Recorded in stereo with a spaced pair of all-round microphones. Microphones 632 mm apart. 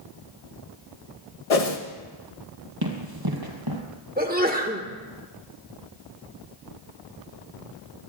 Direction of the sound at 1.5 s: 70° left (ahead or behind).